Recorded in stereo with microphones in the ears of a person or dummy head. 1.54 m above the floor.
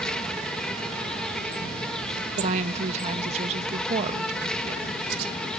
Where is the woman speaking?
35° right (ahead or behind).